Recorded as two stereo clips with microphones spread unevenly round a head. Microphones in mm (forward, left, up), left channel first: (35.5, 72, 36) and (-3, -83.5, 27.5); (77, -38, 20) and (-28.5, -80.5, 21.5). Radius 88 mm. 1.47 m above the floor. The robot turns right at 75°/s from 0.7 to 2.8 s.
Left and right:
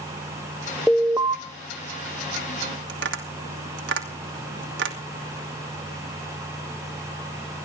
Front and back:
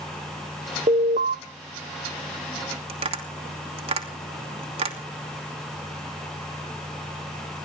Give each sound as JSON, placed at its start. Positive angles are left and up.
{"t": 0.9, "sound": "an alarm", "azimuth_deg": 160, "distance_m": 1.1}
{"t": 2.9, "sound": "tapping", "azimuth_deg": -125, "distance_m": 2.5}